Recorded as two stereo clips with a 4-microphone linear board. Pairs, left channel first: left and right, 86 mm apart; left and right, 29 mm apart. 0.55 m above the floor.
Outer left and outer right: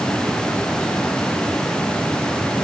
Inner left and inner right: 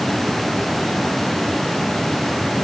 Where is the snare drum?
I don't hear a snare drum.